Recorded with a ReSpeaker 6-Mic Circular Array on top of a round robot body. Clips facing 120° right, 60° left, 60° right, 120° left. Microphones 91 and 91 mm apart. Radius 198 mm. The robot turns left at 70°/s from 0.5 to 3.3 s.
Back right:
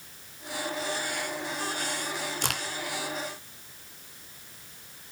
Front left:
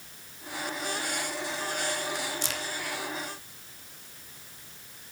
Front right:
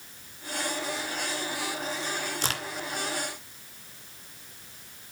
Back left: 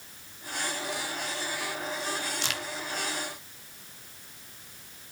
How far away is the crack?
About 2 m.